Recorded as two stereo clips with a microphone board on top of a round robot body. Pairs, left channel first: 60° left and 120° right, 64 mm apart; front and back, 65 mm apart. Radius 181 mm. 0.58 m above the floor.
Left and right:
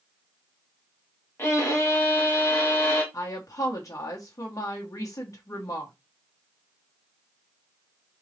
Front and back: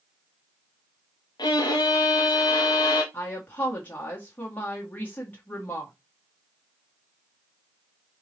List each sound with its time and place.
1.4 s a violin: 5° left, 0.9 m
3.1 s a woman speaking: 60° left, 1.5 m